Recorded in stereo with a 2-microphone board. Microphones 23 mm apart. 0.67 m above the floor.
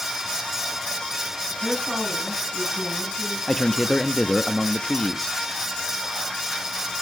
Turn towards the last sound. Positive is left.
turn(degrees=30)  # may be behind; listen again after turning